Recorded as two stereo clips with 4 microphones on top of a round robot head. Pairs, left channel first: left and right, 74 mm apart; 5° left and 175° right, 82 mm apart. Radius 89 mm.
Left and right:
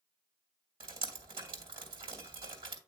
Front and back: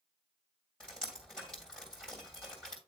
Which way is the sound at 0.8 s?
80° right.